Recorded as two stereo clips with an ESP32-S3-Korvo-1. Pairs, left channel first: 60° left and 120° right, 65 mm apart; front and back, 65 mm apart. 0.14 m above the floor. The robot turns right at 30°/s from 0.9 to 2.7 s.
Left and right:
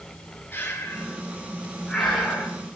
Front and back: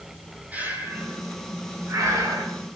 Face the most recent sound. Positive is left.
turn(degrees=170)